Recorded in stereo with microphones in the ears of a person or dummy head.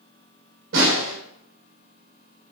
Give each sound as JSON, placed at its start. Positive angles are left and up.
{"t": 0.7, "sound": "a snare drum", "side_deg": -70, "distance_m": 2.5}